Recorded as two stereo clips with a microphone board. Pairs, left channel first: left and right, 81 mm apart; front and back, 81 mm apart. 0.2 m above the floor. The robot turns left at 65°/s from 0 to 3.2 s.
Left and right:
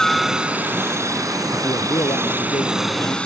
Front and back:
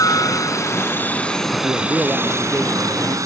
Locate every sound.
0.0 s a helicopter: 10° left; by 3.3 s 160° left
1.6 s a man speaking: 135° left; by 3.2 s 35° left